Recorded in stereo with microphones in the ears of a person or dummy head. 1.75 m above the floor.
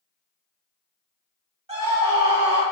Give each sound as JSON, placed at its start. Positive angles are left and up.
{"t": 1.7, "sound": "a scream", "side_deg": -30, "distance_m": 1.3}